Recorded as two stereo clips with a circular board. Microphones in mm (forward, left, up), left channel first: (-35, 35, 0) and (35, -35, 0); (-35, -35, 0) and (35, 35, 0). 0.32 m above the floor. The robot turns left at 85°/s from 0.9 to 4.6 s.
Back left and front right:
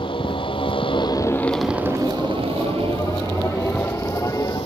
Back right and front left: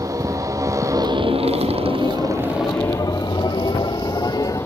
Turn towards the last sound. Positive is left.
turn(degrees=155)